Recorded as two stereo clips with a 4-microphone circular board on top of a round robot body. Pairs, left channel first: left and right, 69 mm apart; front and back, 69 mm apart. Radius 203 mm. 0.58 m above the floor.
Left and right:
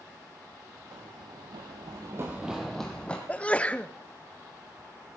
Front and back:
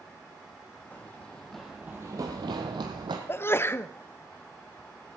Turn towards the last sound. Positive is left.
turn(degrees=30)